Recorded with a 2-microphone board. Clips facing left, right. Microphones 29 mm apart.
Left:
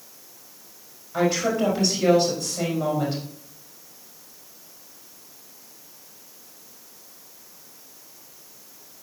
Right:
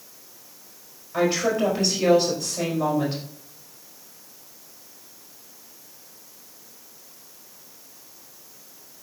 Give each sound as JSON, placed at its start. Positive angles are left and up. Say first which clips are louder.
{"t": 1.1, "sound": "a woman speaking", "louder": "even", "side_deg": -25, "distance_m": 5.0}